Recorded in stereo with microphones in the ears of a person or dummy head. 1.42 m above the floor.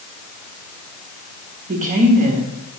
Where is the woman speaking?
40° right (ahead or behind), 0.8 m.